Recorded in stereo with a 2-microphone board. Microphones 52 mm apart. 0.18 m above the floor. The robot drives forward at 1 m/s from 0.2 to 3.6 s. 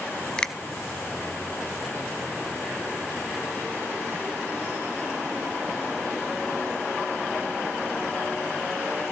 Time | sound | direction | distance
0.4 | a finger snap | 15° left (ahead or behind) | 0.9 m